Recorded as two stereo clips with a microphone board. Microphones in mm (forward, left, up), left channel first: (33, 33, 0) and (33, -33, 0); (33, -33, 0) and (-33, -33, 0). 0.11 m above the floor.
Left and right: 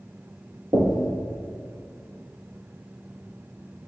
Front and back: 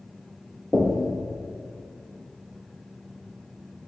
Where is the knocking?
90° right, 1.6 m.